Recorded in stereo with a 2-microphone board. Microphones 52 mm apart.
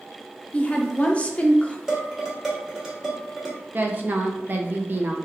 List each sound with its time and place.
0.5 s a woman speaking: 25° left (ahead or behind), 0.5 m
1.9 s dishes clattering: 15° right (ahead or behind), 1.1 m
3.7 s a woman speaking: 40° right (ahead or behind), 0.5 m